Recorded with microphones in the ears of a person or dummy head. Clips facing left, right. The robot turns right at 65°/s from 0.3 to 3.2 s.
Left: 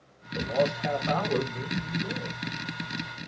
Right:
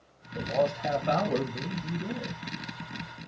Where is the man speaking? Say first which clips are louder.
Left 1 dB; 150° left, 1.0 m; by 2.4 s 75° right, 1.0 m.